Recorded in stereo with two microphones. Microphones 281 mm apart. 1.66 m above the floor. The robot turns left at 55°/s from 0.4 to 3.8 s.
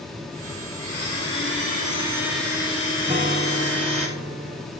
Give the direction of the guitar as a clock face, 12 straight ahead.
1 o'clock.